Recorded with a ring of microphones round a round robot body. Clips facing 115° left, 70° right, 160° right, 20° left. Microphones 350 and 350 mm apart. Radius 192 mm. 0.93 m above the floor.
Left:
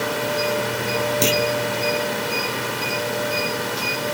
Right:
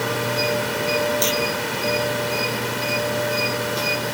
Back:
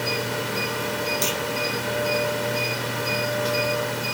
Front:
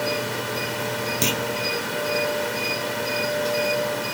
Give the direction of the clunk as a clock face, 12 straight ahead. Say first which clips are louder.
Left 3 dB, front 2 dB; 10 o'clock.